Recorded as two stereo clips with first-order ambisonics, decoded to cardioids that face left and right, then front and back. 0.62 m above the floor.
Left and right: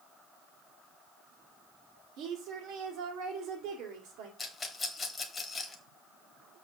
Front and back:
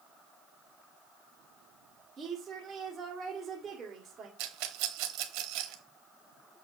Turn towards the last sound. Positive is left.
turn(degrees=165)